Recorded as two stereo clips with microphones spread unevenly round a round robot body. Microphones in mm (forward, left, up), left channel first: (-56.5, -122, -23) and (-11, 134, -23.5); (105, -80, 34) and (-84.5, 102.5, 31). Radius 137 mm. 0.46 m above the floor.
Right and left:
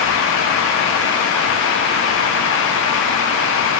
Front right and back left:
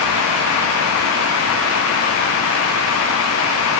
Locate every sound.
Only background noise.